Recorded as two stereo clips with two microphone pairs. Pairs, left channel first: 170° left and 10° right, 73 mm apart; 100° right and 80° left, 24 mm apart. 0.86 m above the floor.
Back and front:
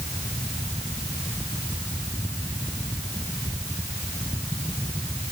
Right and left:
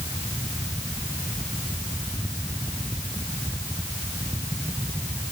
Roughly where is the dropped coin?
No dropped coin in this recording.